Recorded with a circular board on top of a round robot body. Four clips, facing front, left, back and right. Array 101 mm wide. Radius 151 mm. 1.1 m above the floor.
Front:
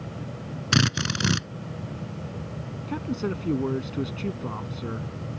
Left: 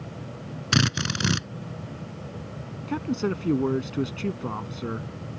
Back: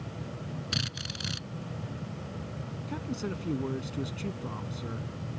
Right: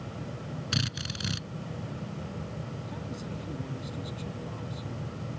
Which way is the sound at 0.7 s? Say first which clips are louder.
Left 12 dB, front 13 dB; 45° left.